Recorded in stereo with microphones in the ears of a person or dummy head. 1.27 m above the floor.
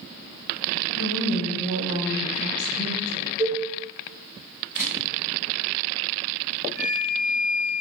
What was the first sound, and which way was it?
A woman speaking, 85° left.